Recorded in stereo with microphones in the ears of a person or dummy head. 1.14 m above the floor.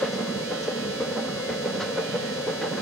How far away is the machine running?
About 0.9 m.